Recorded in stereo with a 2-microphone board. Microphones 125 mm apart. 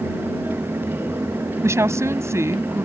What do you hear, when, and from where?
1.6 s a woman speaking: 25° right (ahead or behind)